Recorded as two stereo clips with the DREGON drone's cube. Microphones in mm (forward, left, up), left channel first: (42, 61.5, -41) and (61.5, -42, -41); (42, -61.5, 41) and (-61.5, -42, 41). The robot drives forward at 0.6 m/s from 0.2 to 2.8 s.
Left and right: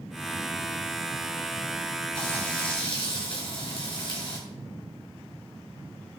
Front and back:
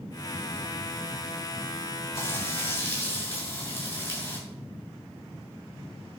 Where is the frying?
55° left, 7 m; by 4.4 s 60° left, 7 m.